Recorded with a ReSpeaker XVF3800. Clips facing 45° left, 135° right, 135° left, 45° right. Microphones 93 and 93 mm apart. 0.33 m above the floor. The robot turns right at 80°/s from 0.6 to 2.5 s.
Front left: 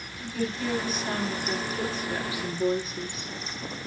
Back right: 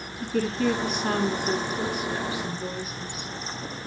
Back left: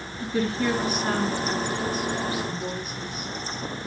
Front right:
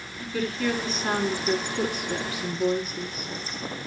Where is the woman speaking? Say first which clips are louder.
Back right 5 dB, back left 2 dB; 165° right, 3.5 m; by 3.3 s 15° right, 3.5 m.